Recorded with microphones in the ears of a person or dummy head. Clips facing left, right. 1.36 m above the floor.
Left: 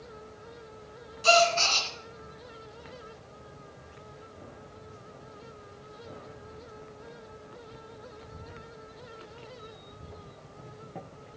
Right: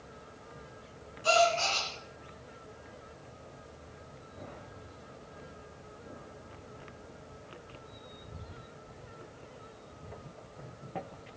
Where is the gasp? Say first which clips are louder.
Left 3 dB; 65° left (ahead or behind), 3 m.